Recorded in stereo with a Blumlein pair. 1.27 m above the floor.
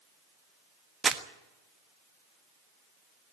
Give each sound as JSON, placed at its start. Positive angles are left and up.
{"t": 1.0, "sound": "crumpling", "azimuth_deg": -15, "distance_m": 1.3}